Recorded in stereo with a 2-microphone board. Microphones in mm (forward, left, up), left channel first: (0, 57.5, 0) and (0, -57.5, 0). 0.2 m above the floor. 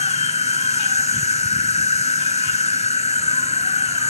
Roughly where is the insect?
Left.